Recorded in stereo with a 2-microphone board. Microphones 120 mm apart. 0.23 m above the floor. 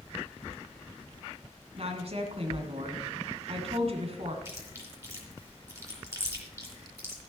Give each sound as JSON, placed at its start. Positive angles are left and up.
{"t": 1.8, "sound": "a woman speaking", "side_deg": -55, "distance_m": 2.0}
{"t": 4.5, "sound": "chewing", "side_deg": -25, "distance_m": 3.0}